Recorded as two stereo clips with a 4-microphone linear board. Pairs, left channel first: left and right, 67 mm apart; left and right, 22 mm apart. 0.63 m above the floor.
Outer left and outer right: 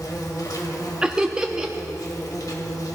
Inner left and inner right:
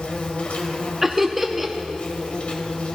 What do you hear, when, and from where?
0.0 s an insect: 55° left (ahead or behind), 1.4 m
1.0 s laughter: 10° right (ahead or behind), 0.6 m